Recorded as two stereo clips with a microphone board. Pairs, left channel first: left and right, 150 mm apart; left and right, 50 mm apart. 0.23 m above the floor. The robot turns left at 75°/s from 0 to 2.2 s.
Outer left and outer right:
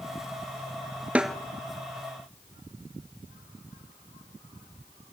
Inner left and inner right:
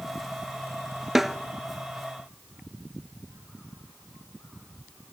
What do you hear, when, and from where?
1.1 s a snare drum: 10° right (ahead or behind), 0.5 m; by 1.4 s 5° left (ahead or behind), 0.5 m